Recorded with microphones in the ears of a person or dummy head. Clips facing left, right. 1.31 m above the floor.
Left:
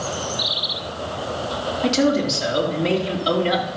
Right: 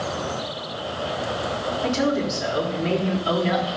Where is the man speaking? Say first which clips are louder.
Left 4 dB; 50° left (ahead or behind), 4 m.